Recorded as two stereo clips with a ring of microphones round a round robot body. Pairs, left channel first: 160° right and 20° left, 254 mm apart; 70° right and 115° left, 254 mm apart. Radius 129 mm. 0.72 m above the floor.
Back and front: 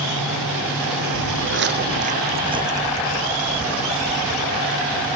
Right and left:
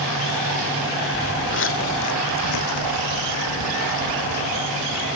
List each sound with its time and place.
1.1 s footsteps: 5° right; by 4.7 s 70° right